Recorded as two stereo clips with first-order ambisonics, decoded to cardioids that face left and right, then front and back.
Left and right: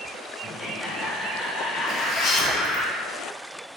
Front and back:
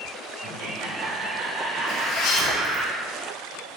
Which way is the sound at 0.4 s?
160° right.